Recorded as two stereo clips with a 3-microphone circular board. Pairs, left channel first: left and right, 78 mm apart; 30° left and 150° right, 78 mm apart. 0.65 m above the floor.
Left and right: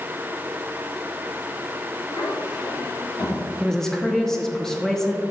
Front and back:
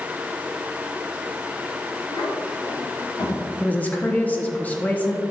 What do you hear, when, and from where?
2.1 s a child speaking: 60° left, 2.5 m; by 3.4 s 55° left, 3.5 m
3.6 s a woman speaking: 15° left, 0.9 m